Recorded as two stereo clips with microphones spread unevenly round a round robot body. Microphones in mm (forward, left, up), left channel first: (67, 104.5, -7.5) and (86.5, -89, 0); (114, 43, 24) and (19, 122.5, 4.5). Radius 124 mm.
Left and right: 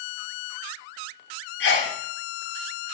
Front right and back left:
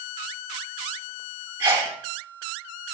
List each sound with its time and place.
1.6 s a sneeze: 75° left, 1.6 m